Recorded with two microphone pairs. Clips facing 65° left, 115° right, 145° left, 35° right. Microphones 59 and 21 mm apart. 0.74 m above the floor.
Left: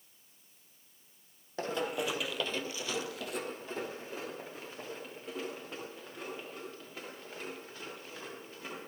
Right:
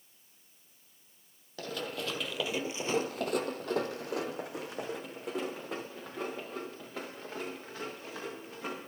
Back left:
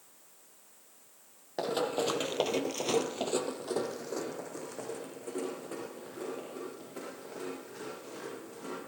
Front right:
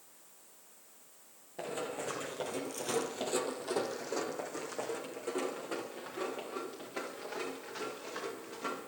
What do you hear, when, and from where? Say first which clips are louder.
1.6 s running footsteps: left 4 dB, back left 7 dB; 120° left, 1.8 m; by 8.8 s 100° right, 8.5 m